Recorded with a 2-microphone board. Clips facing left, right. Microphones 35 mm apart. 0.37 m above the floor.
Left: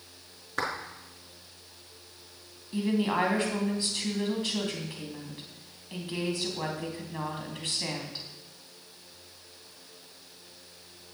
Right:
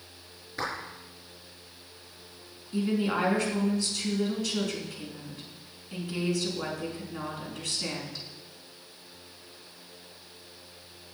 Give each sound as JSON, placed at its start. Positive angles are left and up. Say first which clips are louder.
{"t": 0.6, "sound": "a clap", "louder": "left 2 dB", "side_deg": 70, "distance_m": 5.0}
{"t": 2.7, "sound": "a woman speaking", "louder": "even", "side_deg": 35, "distance_m": 3.5}